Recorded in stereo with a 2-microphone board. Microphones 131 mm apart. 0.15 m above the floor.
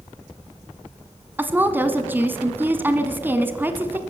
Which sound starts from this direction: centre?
A woman speaking, at 1.4 s.